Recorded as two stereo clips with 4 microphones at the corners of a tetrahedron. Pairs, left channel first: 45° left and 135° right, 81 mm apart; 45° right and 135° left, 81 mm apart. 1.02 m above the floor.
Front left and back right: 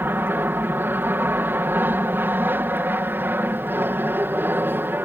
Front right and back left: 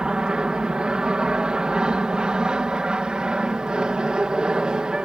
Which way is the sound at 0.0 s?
155° right.